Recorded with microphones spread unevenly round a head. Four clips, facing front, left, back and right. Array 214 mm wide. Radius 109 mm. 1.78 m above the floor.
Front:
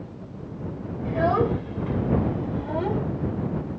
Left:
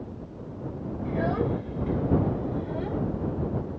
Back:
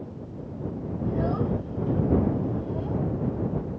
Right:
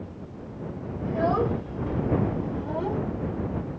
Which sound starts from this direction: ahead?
A child speaking, at 1.1 s.